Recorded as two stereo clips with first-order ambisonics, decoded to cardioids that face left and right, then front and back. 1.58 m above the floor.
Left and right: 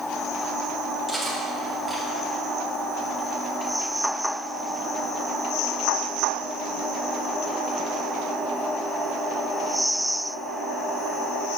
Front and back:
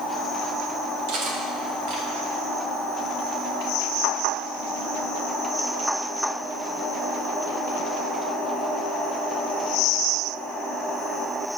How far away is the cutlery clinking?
About 1.3 m.